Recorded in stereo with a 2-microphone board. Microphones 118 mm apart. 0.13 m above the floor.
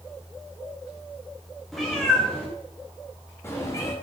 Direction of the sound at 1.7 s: Centre (ahead or behind).